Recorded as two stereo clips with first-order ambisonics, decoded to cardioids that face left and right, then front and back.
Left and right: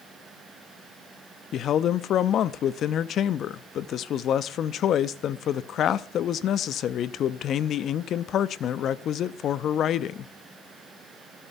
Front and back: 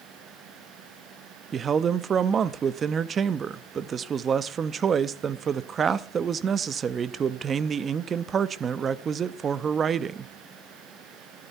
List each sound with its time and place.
1.5 s a man speaking: 125° left, 0.6 m